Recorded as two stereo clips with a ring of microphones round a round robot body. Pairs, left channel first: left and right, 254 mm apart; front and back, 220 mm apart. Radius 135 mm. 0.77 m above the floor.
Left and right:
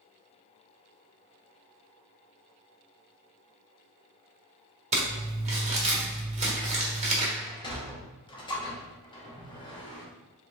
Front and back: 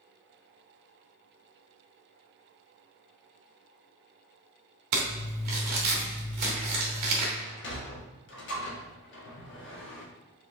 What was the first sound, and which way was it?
Crumpling, 155° right.